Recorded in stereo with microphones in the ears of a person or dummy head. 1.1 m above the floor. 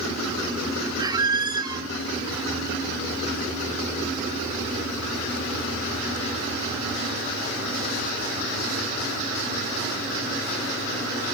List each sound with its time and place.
1.0 s a squeak: 20° right (ahead or behind), 0.6 m